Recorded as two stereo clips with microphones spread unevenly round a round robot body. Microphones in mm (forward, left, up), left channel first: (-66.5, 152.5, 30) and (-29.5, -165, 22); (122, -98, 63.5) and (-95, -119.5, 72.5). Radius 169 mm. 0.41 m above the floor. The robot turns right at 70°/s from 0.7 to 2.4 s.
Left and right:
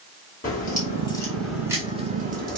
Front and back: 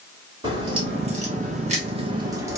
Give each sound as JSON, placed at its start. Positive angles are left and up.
{"t": 0.4, "sound": "a crack", "azimuth_deg": 135, "distance_m": 1.3}